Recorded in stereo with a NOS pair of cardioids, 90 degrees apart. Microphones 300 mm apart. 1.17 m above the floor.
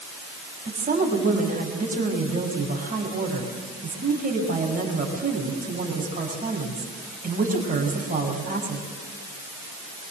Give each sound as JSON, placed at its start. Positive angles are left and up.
{"t": 0.7, "sound": "a woman speaking", "azimuth_deg": -25, "distance_m": 7.0}